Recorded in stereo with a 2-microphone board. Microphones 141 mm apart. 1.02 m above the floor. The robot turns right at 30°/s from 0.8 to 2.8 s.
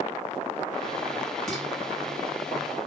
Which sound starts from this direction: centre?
Dishes clattering, at 1.5 s.